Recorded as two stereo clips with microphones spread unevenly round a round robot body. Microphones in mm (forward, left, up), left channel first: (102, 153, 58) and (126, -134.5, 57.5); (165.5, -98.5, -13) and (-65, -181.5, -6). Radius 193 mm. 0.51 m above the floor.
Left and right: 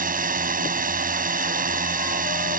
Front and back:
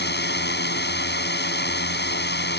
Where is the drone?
25° right.